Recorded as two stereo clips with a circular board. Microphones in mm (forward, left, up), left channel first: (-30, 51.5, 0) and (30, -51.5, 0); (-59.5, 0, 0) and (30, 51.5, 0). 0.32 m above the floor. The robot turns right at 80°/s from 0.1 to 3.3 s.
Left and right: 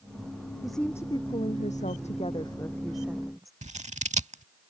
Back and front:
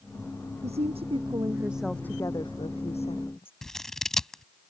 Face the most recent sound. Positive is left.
turn(degrees=-65)